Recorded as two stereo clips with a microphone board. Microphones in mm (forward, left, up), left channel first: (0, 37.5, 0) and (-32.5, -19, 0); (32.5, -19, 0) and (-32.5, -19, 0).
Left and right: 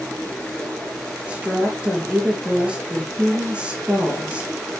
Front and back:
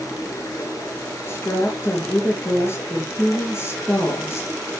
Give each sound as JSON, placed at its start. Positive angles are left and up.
{"t": 0.0, "sound": "running water", "azimuth_deg": -15, "distance_m": 3.5}
{"t": 1.3, "sound": "a woman speaking", "azimuth_deg": -45, "distance_m": 4.0}